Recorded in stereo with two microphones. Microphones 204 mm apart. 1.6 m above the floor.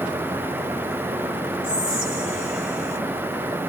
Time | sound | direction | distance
1.6 | whispering | 5° right (ahead or behind) | 2 m